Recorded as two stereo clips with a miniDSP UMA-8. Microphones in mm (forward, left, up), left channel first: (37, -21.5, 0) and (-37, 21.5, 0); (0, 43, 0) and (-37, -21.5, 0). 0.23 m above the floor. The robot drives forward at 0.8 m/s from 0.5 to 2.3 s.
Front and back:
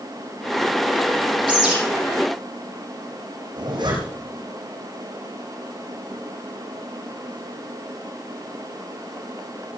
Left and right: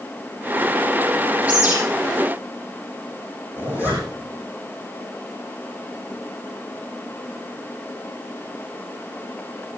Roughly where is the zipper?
Behind.